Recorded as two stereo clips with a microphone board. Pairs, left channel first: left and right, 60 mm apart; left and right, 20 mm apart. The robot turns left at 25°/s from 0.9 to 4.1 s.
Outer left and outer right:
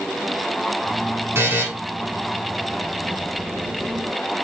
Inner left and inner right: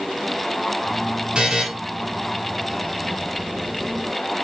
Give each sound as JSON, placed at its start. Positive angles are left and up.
{"t": 1.4, "sound": "a buzzer", "side_deg": -45, "distance_m": 1.7}